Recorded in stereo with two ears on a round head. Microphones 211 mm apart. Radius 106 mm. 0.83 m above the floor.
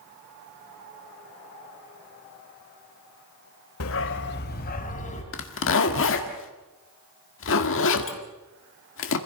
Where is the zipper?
60° left (ahead or behind), 1.7 m.